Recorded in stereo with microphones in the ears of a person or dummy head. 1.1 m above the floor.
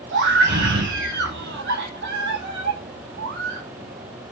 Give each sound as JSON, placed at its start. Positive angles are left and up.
{"t": 0.1, "sound": "a scream", "side_deg": -55, "distance_m": 2.5}